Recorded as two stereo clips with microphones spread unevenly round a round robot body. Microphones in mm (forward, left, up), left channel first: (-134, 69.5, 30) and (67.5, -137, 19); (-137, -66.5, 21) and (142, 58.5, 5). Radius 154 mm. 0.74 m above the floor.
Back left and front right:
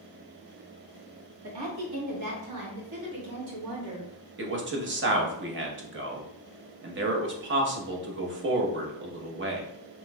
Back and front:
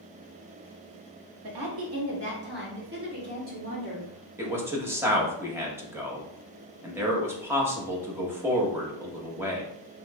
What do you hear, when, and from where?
1.4 s a woman speaking: 10° right, 1.4 m; by 4.3 s 40° right, 3 m
4.4 s a man speaking: 50° right, 0.9 m